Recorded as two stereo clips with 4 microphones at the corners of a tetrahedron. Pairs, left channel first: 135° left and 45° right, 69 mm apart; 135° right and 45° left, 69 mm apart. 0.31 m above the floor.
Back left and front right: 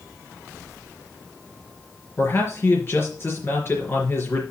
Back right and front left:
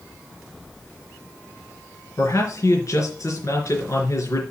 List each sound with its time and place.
2.2 s a man speaking: 175° right, 4 m